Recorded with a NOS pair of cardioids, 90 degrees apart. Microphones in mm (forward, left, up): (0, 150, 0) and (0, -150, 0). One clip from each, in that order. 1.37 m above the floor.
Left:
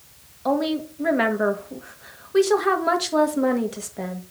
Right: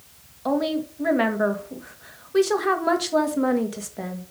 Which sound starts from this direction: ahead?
A woman speaking, at 0.5 s.